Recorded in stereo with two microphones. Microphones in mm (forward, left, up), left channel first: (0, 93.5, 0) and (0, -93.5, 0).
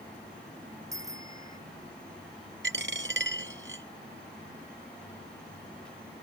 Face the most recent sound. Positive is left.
turn(degrees=-85)